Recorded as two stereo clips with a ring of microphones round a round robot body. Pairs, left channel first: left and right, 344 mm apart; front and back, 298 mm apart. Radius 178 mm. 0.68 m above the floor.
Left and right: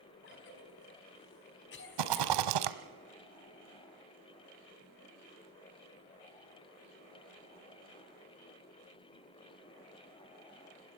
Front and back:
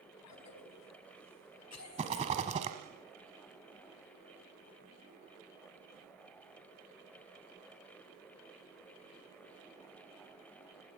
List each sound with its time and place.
0.2 s a cough: 30° left, 5 m
2.0 s a rattle: 110° right, 1.1 m